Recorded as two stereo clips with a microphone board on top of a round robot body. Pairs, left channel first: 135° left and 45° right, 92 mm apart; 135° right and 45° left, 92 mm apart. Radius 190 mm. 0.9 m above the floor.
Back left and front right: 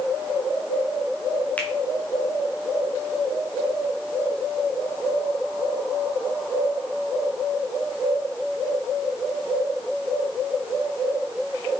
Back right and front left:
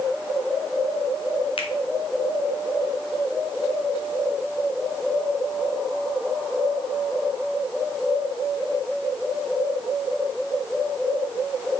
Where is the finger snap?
150° right, 1.8 m.